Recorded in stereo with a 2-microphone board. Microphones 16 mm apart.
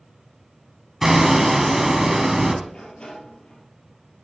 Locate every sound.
1.0 s hammering: 25° right (ahead or behind), 1.7 m
2.7 s a sliding door: 80° left, 3 m